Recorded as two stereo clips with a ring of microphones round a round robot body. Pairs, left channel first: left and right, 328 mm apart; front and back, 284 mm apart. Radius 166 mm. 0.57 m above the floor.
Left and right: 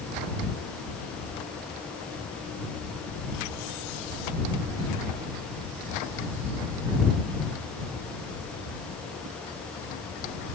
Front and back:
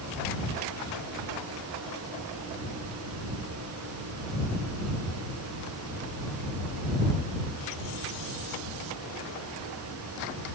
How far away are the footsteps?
I don't hear footsteps.